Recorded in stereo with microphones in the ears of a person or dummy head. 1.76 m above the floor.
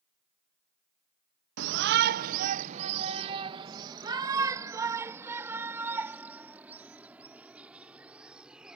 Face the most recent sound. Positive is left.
turn(degrees=-5)  # may be behind; listen again after turning